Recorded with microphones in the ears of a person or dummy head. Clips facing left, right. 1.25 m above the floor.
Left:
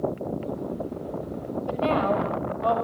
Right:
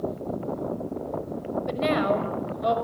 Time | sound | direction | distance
1.7 | a woman speaking | 25° right (ahead or behind) | 5.5 m